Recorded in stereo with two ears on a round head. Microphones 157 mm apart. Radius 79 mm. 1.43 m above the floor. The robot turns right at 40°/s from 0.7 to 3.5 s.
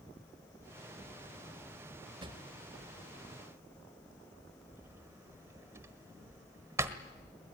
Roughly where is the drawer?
Right.